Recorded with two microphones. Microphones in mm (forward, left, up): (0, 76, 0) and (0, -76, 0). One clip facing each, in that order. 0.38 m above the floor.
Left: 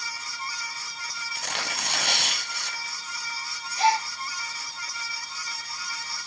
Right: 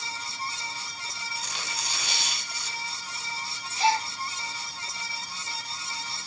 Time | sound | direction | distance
1.4 | tearing paper | 70° left (ahead or behind) | 1.3 m
3.8 | a gasp | 50° left (ahead or behind) | 7 m